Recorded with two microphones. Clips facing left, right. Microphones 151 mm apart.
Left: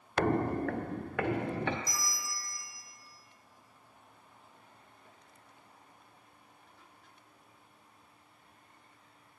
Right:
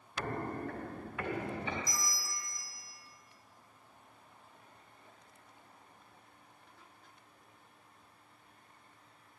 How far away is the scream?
I don't hear a scream.